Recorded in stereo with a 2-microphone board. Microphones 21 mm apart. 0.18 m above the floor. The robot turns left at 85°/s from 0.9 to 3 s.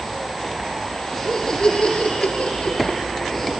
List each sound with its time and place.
1.1 s laughter: 175° right, 3 m; by 3.5 s 25° left, 3 m